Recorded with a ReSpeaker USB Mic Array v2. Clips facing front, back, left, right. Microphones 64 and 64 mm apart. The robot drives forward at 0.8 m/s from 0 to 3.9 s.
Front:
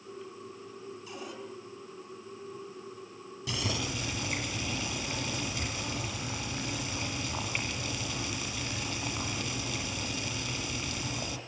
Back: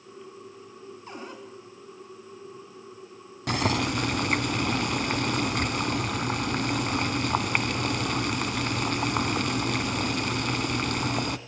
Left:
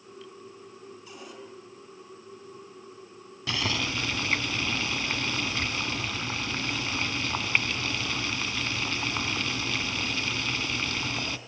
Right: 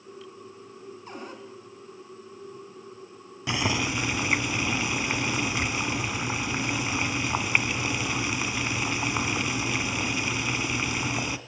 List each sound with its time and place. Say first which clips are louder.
1.1 s a cupboard door: back 4 dB, right 6 dB; 135° right, 6 m
3.5 s boiling: back 9 dB, right 3 dB; 160° right, 1.7 m; by 11.4 s 165° right, 2 m